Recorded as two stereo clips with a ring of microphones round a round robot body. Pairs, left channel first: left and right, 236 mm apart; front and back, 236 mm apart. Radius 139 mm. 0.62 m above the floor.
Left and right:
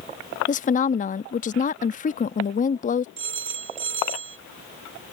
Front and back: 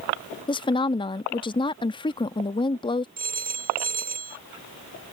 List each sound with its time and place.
0.5 s a woman speaking: 60° left
3.2 s a phone ringing: 125° right